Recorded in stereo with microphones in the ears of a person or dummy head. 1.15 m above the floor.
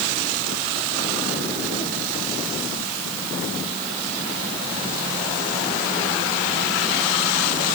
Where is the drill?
I don't hear a drill.